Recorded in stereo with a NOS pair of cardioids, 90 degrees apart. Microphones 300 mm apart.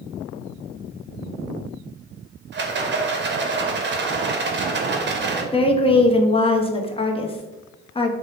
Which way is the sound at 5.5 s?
20° left.